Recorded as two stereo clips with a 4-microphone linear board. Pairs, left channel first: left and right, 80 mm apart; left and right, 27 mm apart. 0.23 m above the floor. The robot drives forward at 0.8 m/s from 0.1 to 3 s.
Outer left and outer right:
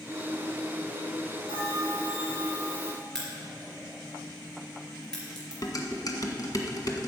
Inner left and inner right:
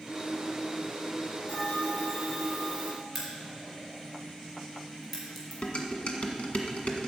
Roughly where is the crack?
Centre.